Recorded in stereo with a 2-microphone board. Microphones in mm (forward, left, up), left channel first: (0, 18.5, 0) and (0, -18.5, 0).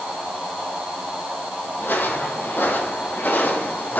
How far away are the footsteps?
About 2.5 m.